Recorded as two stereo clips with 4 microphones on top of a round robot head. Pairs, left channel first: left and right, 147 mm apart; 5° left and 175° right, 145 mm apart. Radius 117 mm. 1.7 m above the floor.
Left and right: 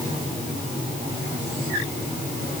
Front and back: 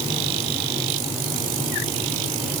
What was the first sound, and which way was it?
Only background noise.